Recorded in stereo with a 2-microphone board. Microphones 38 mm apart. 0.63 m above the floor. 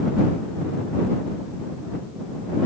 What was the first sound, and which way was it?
Only background noise.